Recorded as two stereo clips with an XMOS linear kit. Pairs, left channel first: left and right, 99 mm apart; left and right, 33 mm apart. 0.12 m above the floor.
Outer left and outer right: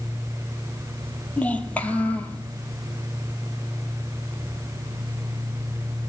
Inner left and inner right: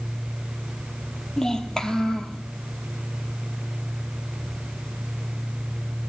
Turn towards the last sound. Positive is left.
turn(degrees=15)  # may be behind; listen again after turning